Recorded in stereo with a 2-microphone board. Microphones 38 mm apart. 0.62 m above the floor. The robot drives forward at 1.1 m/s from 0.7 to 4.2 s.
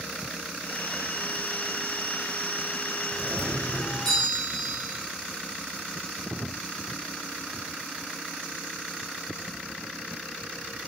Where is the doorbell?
5° left (ahead or behind), 1.6 m.